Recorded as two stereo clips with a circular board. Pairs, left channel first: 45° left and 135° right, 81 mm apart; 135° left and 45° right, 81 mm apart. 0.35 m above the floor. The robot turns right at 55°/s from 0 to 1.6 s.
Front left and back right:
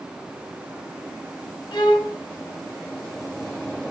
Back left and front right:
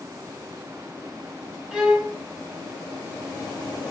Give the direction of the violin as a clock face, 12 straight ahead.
11 o'clock.